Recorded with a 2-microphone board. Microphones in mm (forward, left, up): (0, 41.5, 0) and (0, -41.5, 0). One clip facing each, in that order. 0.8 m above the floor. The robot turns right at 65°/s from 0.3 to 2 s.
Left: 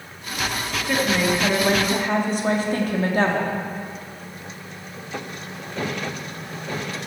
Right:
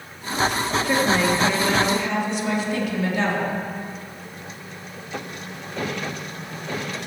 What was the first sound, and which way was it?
A woman speaking, 20° right.